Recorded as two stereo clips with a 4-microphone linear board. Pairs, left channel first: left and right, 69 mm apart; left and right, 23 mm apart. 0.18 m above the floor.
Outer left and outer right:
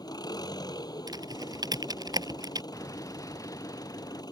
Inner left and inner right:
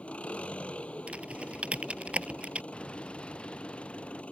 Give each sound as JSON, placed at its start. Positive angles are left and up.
{"t": 0.0, "sound": "an engine running", "side_deg": 75}
{"t": 1.1, "sound": "typing on a keyboard", "side_deg": -70}
{"t": 2.7, "sound": "an explosion", "side_deg": 50}